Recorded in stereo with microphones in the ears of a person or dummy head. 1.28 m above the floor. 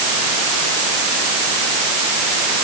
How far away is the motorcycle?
I don't hear a motorcycle.